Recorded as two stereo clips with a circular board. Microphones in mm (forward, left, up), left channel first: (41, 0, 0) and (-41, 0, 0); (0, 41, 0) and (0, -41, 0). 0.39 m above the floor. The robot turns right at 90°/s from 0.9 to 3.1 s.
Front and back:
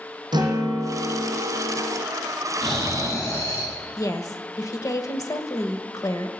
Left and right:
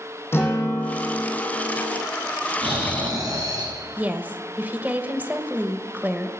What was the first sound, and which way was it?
A guitar, 150° left.